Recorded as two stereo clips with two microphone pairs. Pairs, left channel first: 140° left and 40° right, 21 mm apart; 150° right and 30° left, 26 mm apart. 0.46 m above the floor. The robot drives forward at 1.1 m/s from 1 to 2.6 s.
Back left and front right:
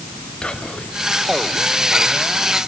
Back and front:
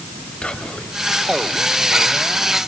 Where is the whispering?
170° left, 2.5 m.